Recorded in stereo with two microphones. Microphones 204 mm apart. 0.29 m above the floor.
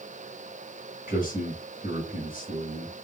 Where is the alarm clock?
No alarm clock in this recording.